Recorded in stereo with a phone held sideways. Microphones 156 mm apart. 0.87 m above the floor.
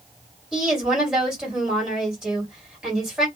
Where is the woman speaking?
5° right (ahead or behind), 2 m.